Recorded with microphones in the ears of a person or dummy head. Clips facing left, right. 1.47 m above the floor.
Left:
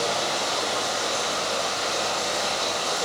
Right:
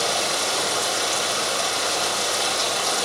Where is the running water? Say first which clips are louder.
Right 1 dB; 40° right (ahead or behind), 1.2 m.